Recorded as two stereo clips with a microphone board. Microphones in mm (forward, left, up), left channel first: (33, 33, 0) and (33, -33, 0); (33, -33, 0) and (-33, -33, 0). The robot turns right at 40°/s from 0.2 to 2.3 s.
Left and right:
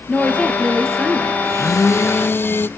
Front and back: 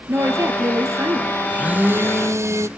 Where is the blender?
105° left, 0.7 m; by 2.7 s 140° left, 0.7 m.